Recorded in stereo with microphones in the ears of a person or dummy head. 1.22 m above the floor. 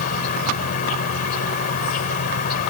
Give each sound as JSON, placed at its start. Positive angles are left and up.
{"t": 0.0, "sound": "an insect", "side_deg": 50}